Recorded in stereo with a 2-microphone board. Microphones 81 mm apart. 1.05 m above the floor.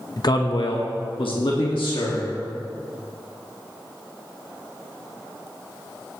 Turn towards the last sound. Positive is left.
turn(degrees=75)  # may be behind; listen again after turning